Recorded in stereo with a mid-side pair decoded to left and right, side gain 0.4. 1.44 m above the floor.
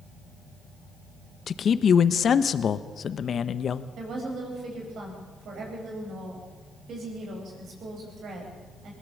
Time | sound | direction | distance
1.5 | a man speaking | 55° left | 1.2 m
4.0 | a woman speaking | 65° right | 9 m